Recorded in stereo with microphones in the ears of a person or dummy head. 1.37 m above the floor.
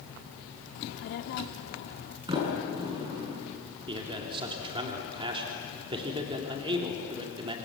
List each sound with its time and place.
0.8 s a child speaking: 60° left (ahead or behind), 1.5 m
2.3 s a sliding door: 25° right (ahead or behind), 7 m
3.9 s a man speaking: 25° right (ahead or behind), 3 m